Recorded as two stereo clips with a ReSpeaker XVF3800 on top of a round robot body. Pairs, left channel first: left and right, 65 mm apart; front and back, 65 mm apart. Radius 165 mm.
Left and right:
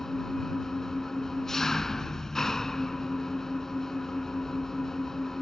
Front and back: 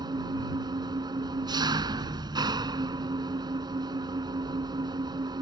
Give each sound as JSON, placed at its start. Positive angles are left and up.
{"t": 0.0, "sound": "an engine running", "azimuth_deg": 175}